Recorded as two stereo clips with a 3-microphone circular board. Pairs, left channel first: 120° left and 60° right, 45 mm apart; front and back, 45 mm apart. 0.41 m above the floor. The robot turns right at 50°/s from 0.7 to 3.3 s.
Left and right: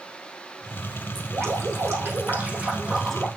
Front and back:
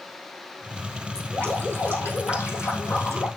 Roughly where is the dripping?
Right.